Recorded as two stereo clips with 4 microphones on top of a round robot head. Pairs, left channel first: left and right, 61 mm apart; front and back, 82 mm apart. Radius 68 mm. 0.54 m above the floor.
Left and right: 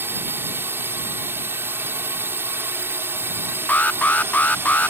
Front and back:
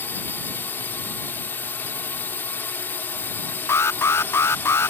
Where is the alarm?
40° left.